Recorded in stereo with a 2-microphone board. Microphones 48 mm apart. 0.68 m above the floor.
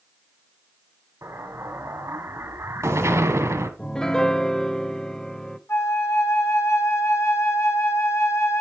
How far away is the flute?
About 1.9 m.